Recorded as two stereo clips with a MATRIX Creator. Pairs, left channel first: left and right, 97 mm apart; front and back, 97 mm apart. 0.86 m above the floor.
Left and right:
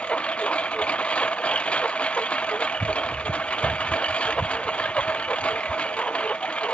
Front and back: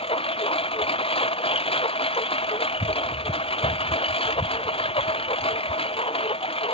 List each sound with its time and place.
0.0 s a lawn mower: 10° left